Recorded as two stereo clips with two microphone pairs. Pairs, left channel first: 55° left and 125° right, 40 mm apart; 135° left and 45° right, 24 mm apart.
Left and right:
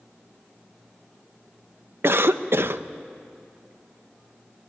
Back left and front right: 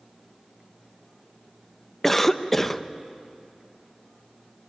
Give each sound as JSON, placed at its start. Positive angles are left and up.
{"t": 2.0, "sound": "a cough", "azimuth_deg": -145, "distance_m": 0.9}